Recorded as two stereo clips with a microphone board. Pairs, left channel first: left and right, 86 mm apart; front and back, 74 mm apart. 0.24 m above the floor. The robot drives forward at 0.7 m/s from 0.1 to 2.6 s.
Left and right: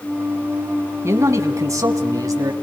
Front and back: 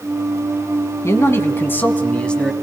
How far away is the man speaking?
About 2.0 m.